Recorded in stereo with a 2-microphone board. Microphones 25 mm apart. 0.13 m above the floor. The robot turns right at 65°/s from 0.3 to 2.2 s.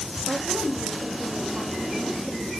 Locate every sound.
0.3 s a woman speaking: 145° right, 8 m; by 2.5 s 20° right, 8 m